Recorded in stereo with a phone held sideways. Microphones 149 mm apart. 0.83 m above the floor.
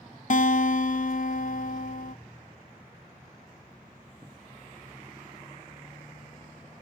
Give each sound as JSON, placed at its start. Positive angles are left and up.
{"t": 0.3, "sound": "a guitar", "side_deg": 60, "distance_m": 0.6}